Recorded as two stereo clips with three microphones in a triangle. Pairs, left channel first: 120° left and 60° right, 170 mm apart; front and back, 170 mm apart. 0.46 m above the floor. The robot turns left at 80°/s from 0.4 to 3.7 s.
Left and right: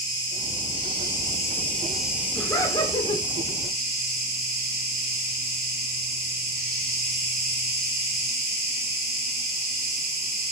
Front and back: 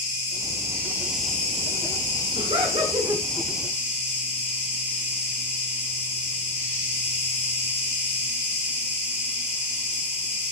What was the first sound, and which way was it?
An insect, 155° left.